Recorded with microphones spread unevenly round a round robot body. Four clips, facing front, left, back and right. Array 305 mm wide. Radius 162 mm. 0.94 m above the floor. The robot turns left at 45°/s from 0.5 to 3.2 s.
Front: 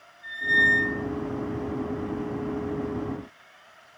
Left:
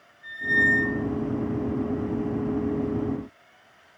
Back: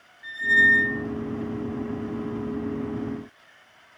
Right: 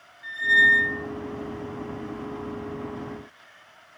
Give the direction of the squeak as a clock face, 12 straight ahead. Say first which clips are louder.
Right 3 dB, back 3 dB; 5 o'clock.